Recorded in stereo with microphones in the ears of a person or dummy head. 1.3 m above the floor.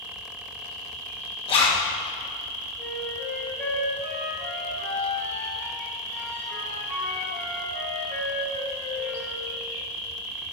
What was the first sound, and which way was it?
An insect, 70° right (ahead or behind).